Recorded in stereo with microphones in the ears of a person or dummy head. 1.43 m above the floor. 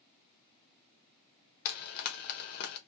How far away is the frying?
About 0.9 m.